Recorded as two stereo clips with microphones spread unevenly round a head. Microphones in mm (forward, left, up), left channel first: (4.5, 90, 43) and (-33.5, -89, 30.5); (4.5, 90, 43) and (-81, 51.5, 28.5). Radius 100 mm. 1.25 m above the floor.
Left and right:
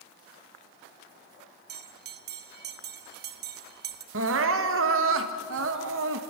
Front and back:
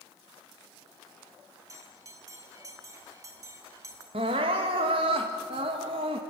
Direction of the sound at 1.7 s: 85° right.